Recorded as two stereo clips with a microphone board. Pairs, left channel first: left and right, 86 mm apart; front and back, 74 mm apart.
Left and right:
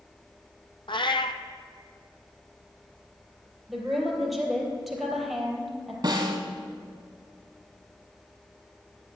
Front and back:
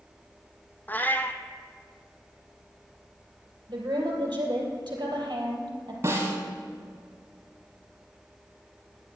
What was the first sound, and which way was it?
A cat meowing, 65° left.